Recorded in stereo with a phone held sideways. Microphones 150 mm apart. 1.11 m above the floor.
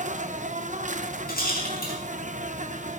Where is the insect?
55° right (ahead or behind), 0.9 m.